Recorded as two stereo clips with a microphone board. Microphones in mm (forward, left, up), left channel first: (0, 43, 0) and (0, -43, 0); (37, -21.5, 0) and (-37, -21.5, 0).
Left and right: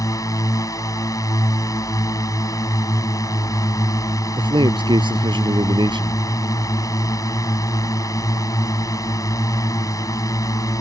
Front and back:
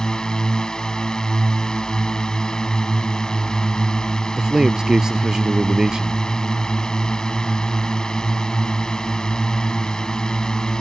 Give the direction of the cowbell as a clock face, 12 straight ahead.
I don't hear a cowbell.